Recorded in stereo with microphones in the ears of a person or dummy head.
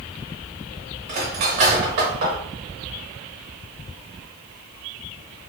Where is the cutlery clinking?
35° right (ahead or behind), 0.8 m.